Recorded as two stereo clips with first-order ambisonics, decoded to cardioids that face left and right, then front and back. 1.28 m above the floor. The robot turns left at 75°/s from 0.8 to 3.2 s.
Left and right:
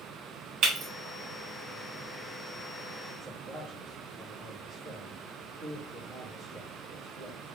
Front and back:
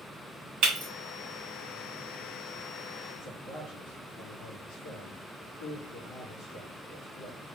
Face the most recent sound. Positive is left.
turn(degrees=0)